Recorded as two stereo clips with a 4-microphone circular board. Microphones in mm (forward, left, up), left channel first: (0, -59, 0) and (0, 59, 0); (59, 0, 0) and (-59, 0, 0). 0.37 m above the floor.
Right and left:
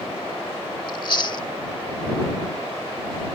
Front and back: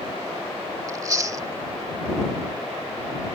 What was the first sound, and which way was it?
Chewing, 125° right.